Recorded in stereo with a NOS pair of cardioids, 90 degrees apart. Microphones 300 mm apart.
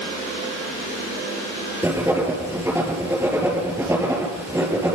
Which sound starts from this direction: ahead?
Writing, at 1.8 s.